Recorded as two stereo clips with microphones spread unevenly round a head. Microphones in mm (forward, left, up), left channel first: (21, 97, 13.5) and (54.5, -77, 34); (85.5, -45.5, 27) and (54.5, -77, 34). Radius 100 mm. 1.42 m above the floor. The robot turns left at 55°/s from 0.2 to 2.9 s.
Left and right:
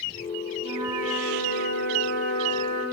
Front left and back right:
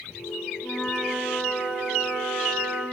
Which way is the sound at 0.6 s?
20° right.